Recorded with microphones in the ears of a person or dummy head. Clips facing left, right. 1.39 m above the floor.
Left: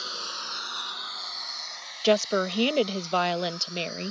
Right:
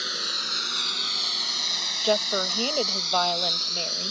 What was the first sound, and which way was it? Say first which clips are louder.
A lawn mower: right 3 dB; 20° right (ahead or behind).